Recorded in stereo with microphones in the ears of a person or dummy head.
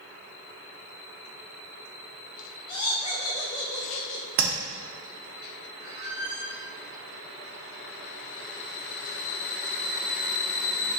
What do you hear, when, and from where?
2.7 s laughter: 20° left (ahead or behind), 0.5 m
4.4 s tapping: 40° right (ahead or behind), 0.8 m
5.8 s a squeak: 25° right (ahead or behind), 1.8 m